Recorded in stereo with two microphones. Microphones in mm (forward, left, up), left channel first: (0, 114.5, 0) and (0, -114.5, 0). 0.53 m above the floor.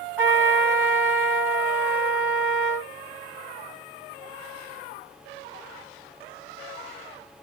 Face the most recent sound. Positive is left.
turn(degrees=-10)  # may be behind; listen again after turning